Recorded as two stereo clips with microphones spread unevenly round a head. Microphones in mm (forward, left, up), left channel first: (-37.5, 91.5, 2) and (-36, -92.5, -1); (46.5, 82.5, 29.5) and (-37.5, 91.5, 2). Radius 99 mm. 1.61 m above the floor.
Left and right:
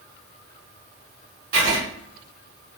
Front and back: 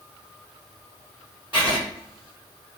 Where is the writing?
110° right, 1.7 m.